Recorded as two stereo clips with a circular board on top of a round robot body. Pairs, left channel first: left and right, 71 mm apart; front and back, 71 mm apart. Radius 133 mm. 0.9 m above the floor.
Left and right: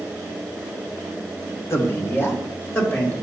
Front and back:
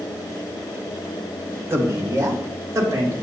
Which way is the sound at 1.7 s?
130° left.